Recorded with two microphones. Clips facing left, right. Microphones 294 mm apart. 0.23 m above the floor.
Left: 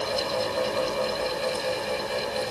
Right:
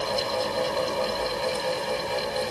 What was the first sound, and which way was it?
Only background noise.